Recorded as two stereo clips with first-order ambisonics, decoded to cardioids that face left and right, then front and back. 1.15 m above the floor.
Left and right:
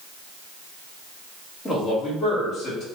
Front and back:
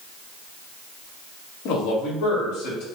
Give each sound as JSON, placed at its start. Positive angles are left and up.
{"t": 1.6, "sound": "a man speaking", "azimuth_deg": 0, "distance_m": 1.4}